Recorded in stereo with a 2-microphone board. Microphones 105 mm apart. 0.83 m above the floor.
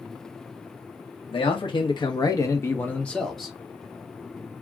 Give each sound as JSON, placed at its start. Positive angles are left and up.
{"t": 1.3, "sound": "a man speaking", "side_deg": 65, "distance_m": 1.0}